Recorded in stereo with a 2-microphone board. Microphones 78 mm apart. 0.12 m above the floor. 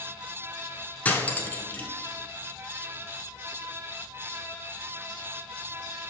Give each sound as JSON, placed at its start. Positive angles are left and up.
{"t": 1.1, "sound": "cutlery clinking", "side_deg": 20, "distance_m": 0.8}